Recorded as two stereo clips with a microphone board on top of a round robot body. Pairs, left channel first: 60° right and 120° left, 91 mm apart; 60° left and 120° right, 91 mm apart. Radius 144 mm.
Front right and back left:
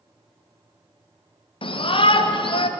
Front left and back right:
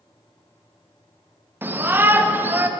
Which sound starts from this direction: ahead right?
A shout, at 1.6 s.